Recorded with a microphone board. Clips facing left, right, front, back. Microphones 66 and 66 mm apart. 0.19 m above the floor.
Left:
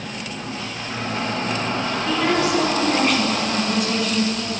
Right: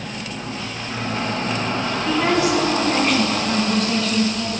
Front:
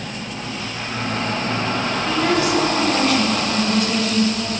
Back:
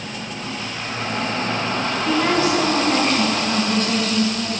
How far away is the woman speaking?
About 1.3 m.